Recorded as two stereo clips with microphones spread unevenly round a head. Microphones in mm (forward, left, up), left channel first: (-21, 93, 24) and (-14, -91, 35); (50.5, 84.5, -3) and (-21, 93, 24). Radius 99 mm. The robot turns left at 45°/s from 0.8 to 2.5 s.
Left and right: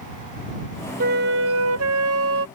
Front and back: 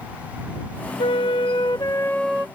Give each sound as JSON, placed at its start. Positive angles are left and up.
{"t": 1.0, "sound": "a flute", "azimuth_deg": -40}